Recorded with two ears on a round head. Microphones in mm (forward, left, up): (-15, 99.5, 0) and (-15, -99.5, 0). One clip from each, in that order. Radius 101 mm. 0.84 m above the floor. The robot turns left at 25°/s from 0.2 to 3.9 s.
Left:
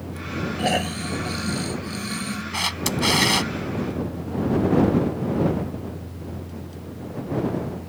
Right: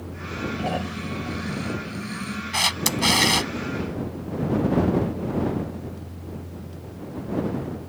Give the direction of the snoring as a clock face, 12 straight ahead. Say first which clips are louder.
Left 9 dB; 10 o'clock.